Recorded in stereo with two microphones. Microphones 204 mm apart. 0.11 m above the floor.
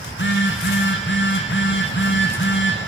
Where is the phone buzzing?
65° left (ahead or behind), 6.5 m.